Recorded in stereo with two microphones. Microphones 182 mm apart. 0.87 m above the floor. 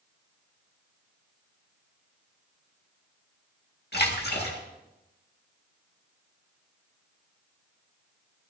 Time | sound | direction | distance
3.9 | a splash | 65° left (ahead or behind) | 2.0 m